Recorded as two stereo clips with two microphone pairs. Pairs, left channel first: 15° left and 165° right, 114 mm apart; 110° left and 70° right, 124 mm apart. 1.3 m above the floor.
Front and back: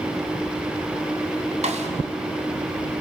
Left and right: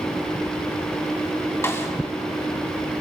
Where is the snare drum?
Straight behind, 2.5 m.